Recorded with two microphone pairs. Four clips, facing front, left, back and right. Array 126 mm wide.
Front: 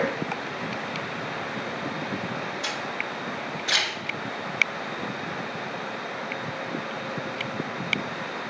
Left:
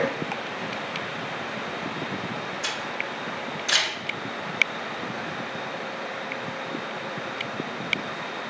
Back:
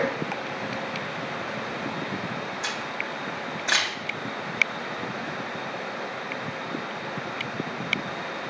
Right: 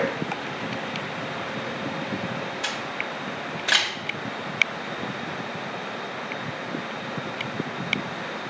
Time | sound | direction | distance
2.6 | a camera shutter | 120° right | 2 m